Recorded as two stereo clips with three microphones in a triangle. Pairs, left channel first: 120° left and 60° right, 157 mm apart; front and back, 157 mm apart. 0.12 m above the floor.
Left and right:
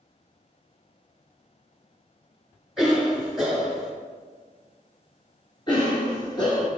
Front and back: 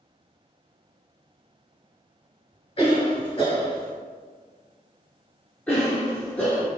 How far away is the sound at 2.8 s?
About 1.9 m.